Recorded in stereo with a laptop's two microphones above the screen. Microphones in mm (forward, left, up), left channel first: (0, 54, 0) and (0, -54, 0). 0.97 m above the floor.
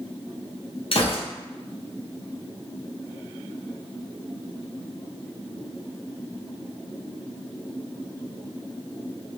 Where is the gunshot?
55° left (ahead or behind), 0.8 m.